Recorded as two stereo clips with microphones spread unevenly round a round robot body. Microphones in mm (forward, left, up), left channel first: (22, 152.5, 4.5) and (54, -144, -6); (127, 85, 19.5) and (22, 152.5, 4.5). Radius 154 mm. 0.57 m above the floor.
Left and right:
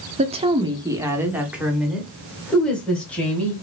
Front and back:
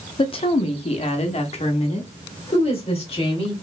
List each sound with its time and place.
0.2 s a woman speaking: 40° right, 0.7 m; by 3.5 s 10° left, 2 m